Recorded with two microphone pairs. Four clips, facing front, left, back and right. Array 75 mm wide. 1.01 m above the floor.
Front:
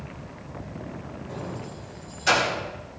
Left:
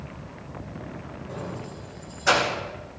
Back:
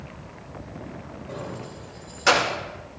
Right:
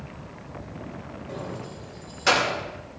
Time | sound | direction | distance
1.3 | keys jangling | 145° right | 2 m